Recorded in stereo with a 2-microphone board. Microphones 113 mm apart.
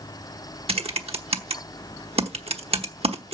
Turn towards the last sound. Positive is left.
turn(degrees=-65)  # may be behind; listen again after turning